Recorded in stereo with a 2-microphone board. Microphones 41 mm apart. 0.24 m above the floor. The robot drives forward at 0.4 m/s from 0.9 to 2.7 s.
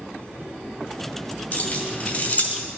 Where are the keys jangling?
35° left (ahead or behind), 2 m; by 2.7 s 45° left (ahead or behind), 1.8 m.